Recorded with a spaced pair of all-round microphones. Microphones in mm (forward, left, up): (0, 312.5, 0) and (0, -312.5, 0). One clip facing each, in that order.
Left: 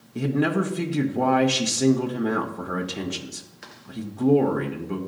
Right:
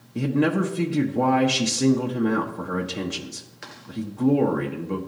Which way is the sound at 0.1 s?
5° left (ahead or behind).